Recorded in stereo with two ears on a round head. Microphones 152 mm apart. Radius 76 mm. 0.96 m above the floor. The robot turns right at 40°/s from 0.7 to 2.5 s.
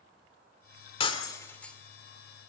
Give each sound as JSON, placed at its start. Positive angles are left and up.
{"t": 1.0, "sound": "breaking glass", "side_deg": 35, "distance_m": 2.0}